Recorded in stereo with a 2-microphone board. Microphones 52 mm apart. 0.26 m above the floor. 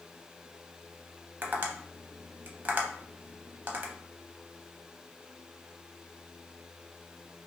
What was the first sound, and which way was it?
Tapping, 35° right (ahead or behind).